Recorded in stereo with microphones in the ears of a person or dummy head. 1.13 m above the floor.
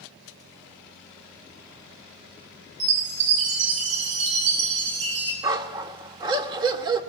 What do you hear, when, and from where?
2.8 s a chime: 60° right (ahead or behind), 7 m
5.4 s a dog barking: 20° right (ahead or behind), 1.3 m